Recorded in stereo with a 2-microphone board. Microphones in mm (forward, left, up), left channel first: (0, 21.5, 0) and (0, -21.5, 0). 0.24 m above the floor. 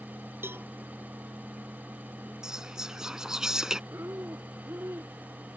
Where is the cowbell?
65° right (ahead or behind).